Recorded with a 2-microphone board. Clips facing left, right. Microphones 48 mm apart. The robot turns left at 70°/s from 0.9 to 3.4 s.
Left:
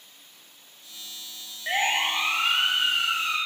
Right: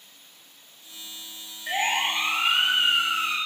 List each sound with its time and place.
1.7 s a siren: 45° left (ahead or behind), 7 m; by 3.4 s 70° right (ahead or behind), 8 m